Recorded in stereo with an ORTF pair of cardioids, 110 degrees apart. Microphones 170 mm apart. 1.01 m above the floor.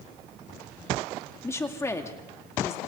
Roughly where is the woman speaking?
Ahead.